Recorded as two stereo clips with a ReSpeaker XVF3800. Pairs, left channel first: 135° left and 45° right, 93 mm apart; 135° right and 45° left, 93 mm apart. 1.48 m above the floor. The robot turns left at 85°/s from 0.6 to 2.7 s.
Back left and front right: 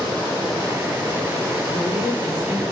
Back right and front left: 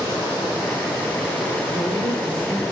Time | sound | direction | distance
1.7 | a man speaking | 100° left | 2 m